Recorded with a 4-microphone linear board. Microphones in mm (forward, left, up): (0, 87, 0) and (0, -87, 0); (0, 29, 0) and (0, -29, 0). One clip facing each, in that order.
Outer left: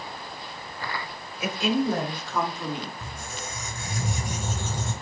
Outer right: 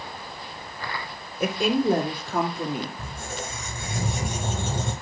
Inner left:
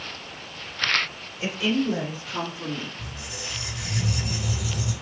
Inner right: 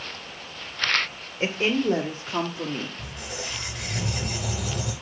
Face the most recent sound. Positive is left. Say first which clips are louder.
# outer right 3 dB, inner right 2 dB
turn(degrees=-70)  # may be behind; listen again after turning